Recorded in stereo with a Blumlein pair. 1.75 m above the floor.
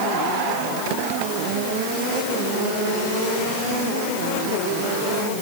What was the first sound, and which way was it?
Only background noise.